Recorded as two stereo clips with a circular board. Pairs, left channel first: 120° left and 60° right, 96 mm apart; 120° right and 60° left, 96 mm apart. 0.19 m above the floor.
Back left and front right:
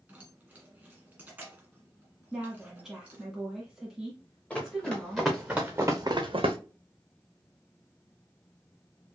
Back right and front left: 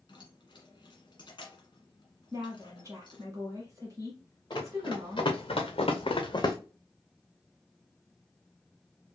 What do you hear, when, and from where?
0.1 s keys jangling: 130° right, 1.7 m
2.3 s a woman speaking: 25° left, 1.3 m
4.5 s running footsteps: 160° right, 2 m; by 6.6 s 65° right, 0.9 m